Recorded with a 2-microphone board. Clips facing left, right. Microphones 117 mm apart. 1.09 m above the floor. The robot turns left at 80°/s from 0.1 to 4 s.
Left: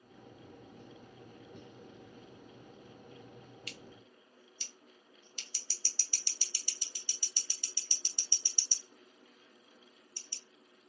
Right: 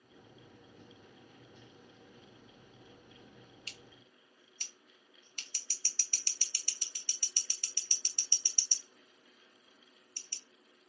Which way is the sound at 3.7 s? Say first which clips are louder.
Left 5 dB; 30° right (ahead or behind).